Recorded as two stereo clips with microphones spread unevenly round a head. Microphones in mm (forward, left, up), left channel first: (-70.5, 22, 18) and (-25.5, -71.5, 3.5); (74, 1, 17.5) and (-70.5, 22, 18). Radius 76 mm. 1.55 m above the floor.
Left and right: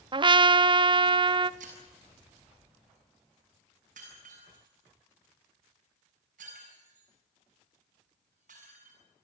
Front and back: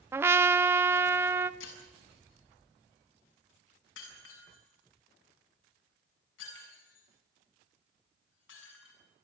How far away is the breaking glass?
About 7 m.